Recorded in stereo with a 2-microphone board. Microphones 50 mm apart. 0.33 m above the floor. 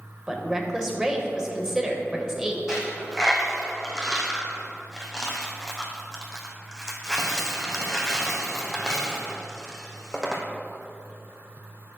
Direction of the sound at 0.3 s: 10° right (ahead or behind).